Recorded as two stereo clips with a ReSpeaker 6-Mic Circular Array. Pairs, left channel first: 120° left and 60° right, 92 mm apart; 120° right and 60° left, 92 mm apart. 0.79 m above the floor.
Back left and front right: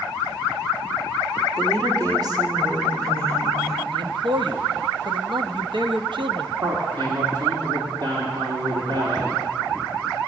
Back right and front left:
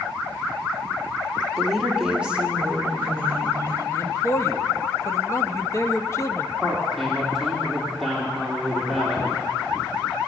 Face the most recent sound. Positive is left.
turn(degrees=-30)